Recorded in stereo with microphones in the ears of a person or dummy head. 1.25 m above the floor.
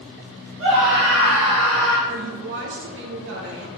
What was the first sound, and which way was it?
A scream, 65° right (ahead or behind).